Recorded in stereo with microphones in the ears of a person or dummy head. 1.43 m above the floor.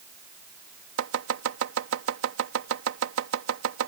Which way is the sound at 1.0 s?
80° right.